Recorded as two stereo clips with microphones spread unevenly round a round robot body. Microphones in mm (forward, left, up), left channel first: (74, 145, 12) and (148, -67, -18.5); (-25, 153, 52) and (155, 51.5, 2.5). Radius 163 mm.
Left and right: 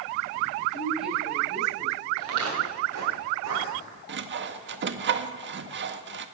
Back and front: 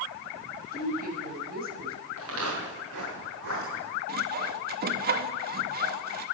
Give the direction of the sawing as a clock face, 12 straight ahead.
2 o'clock.